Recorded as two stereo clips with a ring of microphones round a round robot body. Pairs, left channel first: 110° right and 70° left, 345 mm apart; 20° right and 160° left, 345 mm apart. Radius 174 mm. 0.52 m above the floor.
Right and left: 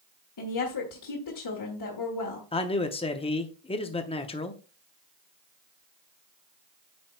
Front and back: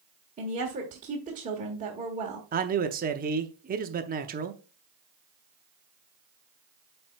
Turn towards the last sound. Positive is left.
turn(degrees=-170)